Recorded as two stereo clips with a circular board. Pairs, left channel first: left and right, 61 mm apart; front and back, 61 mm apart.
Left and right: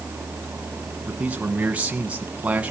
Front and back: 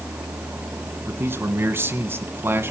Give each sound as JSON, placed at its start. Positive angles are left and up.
{"t": 1.1, "sound": "a man speaking", "azimuth_deg": -150, "distance_m": 1.8}